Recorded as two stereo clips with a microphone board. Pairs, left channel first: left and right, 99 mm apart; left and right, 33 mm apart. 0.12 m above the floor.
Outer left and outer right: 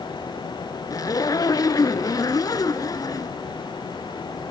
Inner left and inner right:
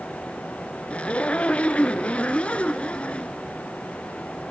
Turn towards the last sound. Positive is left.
turn(degrees=35)  # may be behind; listen again after turning